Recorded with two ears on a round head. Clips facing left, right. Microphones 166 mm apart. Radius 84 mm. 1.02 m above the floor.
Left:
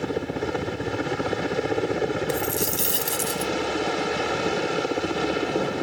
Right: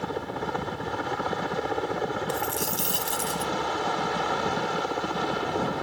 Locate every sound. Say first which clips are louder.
0.0 s a helicopter: left 5 dB; 30° left (ahead or behind)
2.3 s a dropped coin: left 4 dB; 20° left (ahead or behind)